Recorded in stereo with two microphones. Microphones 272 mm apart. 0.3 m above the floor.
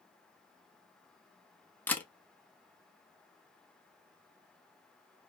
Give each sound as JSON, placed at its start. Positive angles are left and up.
{"t": 1.9, "sound": "a camera shutter", "side_deg": 5, "distance_m": 0.5}